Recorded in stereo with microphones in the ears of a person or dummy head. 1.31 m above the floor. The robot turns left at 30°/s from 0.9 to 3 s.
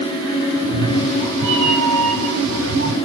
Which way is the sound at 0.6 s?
90° right.